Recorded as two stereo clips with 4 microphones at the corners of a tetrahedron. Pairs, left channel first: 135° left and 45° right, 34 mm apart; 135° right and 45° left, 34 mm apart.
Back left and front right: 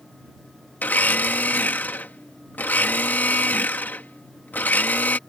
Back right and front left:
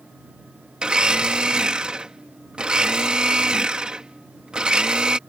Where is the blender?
105° left.